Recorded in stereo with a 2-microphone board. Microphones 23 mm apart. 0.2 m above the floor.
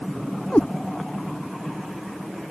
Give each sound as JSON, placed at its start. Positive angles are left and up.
{"t": 0.5, "sound": "a cat meowing", "side_deg": 80}